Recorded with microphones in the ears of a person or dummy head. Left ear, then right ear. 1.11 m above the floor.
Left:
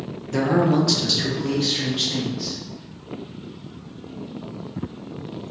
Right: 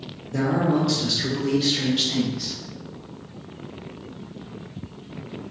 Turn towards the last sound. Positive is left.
turn(degrees=-20)  # may be behind; listen again after turning